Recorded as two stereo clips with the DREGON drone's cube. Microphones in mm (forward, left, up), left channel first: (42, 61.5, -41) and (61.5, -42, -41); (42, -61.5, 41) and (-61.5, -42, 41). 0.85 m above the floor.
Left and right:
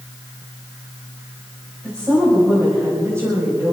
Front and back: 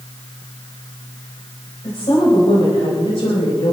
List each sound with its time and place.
1.8 s a woman speaking: 30° right, 5 m; by 3.7 s 15° right, 5 m